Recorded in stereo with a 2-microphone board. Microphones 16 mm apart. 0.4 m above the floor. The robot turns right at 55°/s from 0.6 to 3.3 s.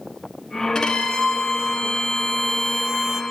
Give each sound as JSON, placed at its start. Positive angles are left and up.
{"t": 0.8, "sound": "a violin", "azimuth_deg": 50, "distance_m": 1.0}